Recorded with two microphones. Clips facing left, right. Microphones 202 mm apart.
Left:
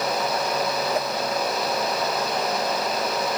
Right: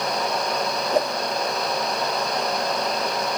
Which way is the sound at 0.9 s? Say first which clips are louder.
Right 4 dB; 30° right (ahead or behind).